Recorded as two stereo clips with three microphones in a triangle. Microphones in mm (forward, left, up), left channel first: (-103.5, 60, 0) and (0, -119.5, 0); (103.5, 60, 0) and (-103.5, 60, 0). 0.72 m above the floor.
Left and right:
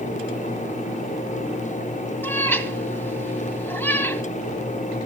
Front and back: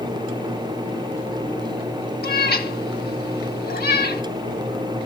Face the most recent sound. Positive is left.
turn(degrees=40)